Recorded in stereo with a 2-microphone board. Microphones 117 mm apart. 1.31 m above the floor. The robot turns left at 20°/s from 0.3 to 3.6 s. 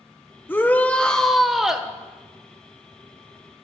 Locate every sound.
0.5 s a shout: 20° left (ahead or behind), 1.2 m; by 1.9 s 5° right (ahead or behind), 1.2 m